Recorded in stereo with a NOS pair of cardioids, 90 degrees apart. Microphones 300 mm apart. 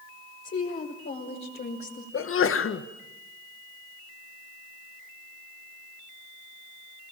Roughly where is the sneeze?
Ahead left.